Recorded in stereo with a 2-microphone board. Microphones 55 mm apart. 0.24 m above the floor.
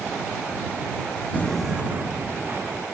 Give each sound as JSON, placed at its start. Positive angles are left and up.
{"t": 1.3, "sound": "footsteps", "side_deg": 35}